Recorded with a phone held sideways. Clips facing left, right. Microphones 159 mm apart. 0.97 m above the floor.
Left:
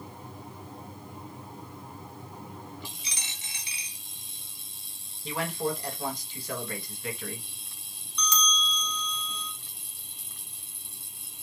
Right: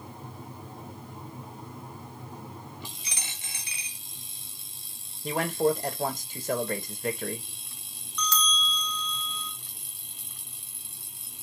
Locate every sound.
3.0 s a dropped coin: 55° right (ahead or behind), 1.2 m
5.2 s a man speaking: 50° right (ahead or behind), 1.1 m
8.2 s a bell: 20° left (ahead or behind), 0.6 m